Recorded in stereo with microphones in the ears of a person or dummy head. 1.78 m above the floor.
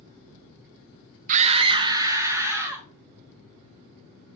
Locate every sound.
1.3 s a scream: 45° right (ahead or behind), 0.6 m; by 2.9 s 15° right (ahead or behind), 1.9 m